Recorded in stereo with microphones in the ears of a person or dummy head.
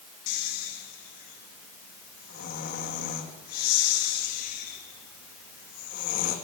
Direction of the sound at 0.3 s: 50° left (ahead or behind).